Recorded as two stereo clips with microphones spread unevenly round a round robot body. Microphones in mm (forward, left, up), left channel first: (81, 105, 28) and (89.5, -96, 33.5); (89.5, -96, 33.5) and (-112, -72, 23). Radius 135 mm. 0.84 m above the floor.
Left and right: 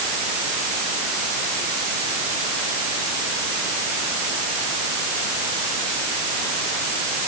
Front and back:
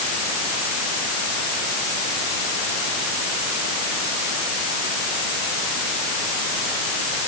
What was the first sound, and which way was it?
Only background noise.